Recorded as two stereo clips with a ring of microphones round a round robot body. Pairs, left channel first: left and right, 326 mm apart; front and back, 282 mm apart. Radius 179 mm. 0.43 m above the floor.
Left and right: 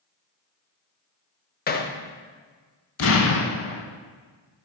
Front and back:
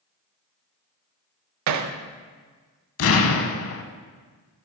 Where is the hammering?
155° left, 0.6 m.